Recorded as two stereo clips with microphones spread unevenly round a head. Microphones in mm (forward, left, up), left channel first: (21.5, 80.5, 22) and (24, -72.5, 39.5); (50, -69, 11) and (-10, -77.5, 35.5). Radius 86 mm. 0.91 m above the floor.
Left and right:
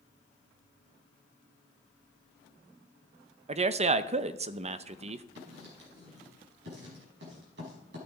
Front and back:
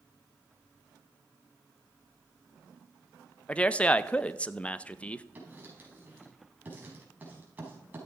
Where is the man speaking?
40° right, 0.7 m.